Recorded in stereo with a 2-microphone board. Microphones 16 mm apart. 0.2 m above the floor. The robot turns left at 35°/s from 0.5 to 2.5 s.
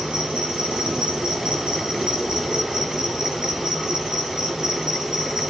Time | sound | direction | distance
0.0 | an insect | 70° right | 5 m